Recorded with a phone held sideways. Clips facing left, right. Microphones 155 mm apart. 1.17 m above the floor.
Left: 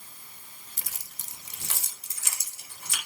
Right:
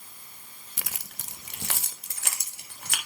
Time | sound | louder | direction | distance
0.8 | keys jangling | right 7 dB | 85° right | 0.6 m